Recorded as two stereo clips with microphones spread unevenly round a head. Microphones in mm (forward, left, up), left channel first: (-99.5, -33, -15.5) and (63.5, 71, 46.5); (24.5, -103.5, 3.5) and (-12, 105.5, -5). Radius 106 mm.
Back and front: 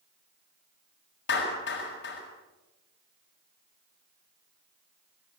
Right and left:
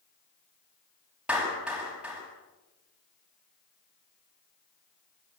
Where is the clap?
175° right, 8 m.